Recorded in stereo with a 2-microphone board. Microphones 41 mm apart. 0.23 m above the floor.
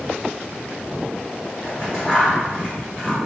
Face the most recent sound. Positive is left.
turn(degrees=10)  # may be behind; listen again after turning